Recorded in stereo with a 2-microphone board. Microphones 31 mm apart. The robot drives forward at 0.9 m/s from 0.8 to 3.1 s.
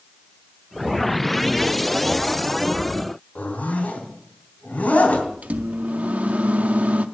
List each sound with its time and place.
3.4 s a zipper: 55° left (ahead or behind), 3 m
5.4 s a microwave: 50° right (ahead or behind), 0.6 m